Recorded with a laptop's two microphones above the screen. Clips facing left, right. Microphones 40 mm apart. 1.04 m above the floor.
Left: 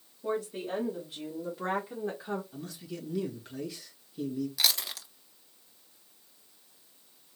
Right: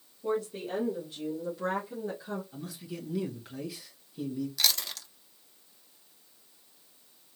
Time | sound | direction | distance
0.2 | a woman speaking | 10° left (ahead or behind) | 1.7 m
2.5 | a man speaking | 5° right (ahead or behind) | 1.5 m
4.6 | chewing | 10° left (ahead or behind) | 0.6 m